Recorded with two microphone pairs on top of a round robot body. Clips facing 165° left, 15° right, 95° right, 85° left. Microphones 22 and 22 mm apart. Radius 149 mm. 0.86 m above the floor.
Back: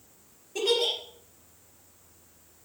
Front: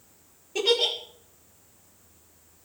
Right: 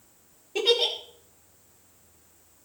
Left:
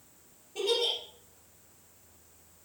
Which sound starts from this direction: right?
A giggle, at 0.6 s.